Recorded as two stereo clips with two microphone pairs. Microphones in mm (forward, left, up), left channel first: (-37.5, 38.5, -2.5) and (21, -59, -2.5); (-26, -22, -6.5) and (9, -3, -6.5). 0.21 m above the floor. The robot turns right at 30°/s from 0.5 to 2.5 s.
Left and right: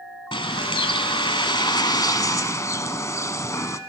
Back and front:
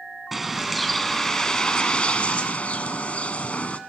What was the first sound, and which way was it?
A bird, 115° left.